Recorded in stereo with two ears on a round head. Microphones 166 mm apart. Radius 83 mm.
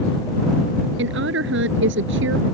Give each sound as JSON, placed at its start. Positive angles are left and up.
{"t": 1.0, "sound": "a woman speaking", "side_deg": -70}